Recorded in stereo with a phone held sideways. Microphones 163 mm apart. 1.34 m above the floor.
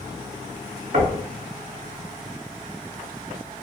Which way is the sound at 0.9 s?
70° right (ahead or behind).